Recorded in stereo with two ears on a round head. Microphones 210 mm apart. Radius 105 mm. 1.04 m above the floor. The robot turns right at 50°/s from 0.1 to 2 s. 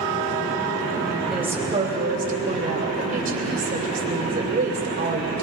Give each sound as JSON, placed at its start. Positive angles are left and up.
{"t": 1.3, "sound": "a woman speaking", "azimuth_deg": 180, "distance_m": 3.0}